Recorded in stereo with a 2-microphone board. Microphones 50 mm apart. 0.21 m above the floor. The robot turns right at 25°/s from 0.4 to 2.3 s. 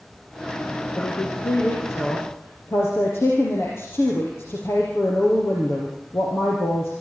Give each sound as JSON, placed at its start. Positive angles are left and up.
{"t": 1.0, "sound": "a woman speaking", "azimuth_deg": 90, "distance_m": 5.5}